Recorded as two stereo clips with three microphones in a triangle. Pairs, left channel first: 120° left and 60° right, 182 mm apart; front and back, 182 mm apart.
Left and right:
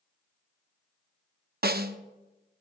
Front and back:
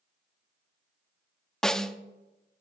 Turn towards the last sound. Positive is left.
turn(degrees=-85)